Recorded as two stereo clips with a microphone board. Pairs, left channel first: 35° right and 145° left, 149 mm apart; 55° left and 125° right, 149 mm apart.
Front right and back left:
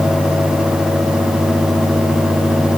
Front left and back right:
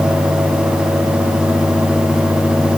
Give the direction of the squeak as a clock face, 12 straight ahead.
No squeak in this recording.